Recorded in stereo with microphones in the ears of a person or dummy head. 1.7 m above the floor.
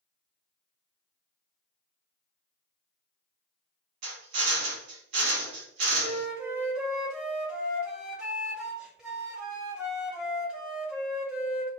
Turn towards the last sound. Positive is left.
turn(degrees=-5)  # may be behind; listen again after turning